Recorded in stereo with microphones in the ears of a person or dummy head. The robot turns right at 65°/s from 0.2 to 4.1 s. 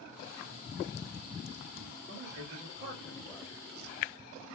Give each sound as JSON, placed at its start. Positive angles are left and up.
{"t": 2.1, "sound": "a man speaking", "azimuth_deg": -75, "distance_m": 1.2}